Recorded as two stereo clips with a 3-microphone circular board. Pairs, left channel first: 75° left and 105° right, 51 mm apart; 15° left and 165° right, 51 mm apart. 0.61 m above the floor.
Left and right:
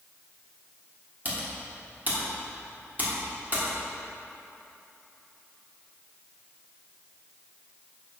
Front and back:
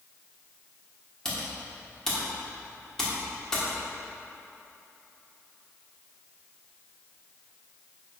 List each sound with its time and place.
1.2 s typing on a keyboard: 60° right, 1.8 m